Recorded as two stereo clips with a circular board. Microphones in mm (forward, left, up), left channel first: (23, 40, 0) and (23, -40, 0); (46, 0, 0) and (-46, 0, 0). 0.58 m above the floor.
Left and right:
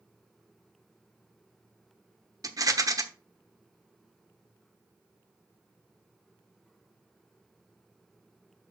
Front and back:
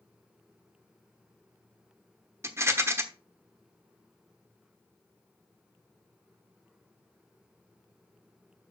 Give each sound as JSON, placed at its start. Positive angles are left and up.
{"t": 2.4, "sound": "a rattle", "azimuth_deg": -120, "distance_m": 1.0}